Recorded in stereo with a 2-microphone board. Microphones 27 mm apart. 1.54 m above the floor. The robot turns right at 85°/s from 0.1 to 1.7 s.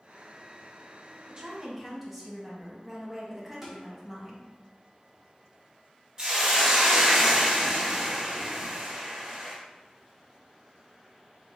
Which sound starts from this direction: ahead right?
A woman speaking, at 1.3 s.